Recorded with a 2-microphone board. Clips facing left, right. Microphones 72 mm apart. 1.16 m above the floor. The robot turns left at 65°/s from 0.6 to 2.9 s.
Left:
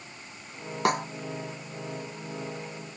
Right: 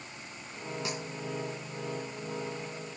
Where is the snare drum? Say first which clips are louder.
Left 16 dB; 60° left (ahead or behind); by 1.1 s 45° left (ahead or behind).